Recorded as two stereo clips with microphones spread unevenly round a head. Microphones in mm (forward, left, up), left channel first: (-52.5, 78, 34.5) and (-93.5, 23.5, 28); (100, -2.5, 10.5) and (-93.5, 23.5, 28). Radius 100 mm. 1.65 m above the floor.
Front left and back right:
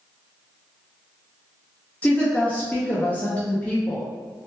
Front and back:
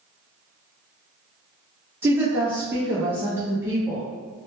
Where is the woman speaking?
105° left, 0.6 m.